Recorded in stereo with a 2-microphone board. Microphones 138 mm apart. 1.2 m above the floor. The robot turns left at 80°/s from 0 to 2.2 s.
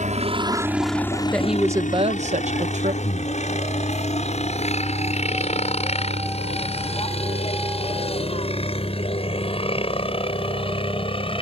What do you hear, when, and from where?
0.0 s a helicopter: 65° right (ahead or behind); by 11.4 s 40° left (ahead or behind)
1.3 s a woman speaking: 10° left; by 2.9 s 60° right
3.0 s breathing: 90° left